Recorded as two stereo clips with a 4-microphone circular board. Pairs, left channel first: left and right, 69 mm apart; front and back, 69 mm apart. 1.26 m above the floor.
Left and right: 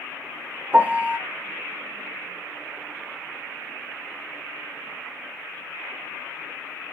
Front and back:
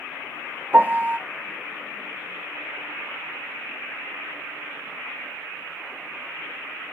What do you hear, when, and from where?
0.7 s a piano: 135° right, 0.6 m